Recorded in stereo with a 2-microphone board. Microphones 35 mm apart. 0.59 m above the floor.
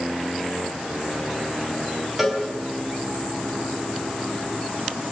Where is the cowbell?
15° right (ahead or behind), 5 m.